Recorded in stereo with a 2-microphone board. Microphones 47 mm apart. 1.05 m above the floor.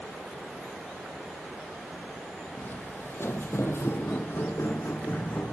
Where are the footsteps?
40° left (ahead or behind), 2.5 m; by 5.5 s 35° left (ahead or behind), 3.5 m.